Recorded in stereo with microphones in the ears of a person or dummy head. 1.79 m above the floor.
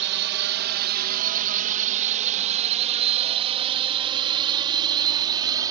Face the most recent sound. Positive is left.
turn(degrees=-20)  # may be behind; listen again after turning